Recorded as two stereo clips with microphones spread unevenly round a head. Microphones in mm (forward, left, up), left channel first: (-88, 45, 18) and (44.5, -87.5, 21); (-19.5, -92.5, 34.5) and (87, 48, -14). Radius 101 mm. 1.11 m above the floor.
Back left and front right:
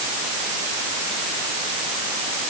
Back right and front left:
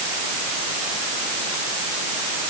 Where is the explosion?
I don't hear an explosion.